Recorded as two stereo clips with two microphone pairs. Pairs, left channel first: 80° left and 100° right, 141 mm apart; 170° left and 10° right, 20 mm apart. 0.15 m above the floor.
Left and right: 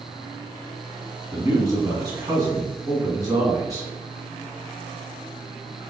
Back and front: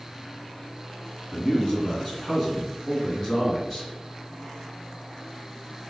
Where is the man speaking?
145° right, 1.9 m.